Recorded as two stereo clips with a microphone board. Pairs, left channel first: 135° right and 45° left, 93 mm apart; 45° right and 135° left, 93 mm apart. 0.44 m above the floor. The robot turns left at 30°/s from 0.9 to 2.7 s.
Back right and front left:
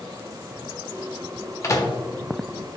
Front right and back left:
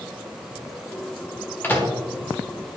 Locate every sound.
1.6 s a microwave: 105° right, 1.1 m; by 1.9 s 110° right, 1.1 m